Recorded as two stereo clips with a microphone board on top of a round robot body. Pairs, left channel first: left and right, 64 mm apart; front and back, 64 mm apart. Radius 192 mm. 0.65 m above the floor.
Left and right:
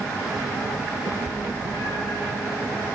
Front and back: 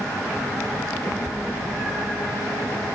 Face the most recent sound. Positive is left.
turn(degrees=105)